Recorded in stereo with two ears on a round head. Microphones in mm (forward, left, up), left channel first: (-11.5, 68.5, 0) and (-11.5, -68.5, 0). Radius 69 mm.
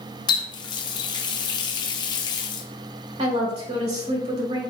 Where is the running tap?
30° left (ahead or behind), 0.6 m.